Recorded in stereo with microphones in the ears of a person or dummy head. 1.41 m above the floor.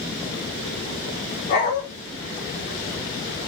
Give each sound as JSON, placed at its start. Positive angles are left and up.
{"t": 1.5, "sound": "a dog barking", "side_deg": 45, "distance_m": 1.3}